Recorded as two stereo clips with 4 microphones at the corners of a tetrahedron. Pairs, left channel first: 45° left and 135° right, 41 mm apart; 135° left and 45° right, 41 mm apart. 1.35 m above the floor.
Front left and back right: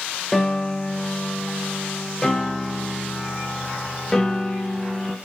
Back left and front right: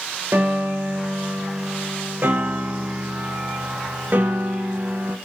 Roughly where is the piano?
Ahead right.